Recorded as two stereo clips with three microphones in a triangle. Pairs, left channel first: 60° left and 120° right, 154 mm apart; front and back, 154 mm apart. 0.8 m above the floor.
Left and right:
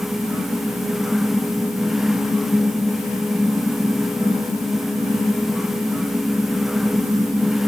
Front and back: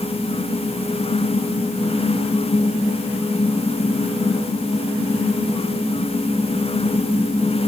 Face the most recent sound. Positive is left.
No sound to turn to.